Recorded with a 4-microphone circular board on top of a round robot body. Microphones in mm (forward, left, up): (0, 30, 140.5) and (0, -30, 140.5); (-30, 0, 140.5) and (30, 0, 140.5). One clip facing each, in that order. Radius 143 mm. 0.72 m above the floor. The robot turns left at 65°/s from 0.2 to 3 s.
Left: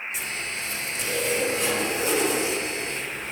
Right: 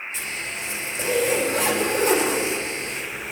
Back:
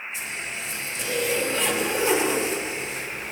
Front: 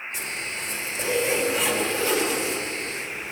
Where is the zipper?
5° left, 3.5 m; by 3.3 s 175° right, 3.5 m.